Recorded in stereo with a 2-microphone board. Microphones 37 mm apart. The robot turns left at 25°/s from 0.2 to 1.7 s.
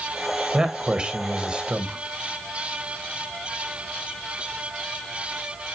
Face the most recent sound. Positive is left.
turn(degrees=-25)  # may be behind; listen again after turning